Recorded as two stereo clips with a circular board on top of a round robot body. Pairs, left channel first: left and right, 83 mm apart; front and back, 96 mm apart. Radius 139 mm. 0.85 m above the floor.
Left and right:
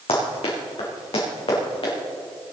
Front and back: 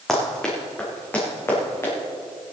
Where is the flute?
I don't hear a flute.